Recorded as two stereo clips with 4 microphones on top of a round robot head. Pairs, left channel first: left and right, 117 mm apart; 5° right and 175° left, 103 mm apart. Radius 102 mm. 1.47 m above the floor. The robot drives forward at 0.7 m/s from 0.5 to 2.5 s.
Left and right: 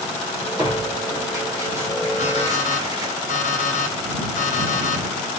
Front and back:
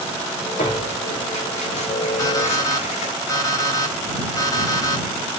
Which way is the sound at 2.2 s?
50° left.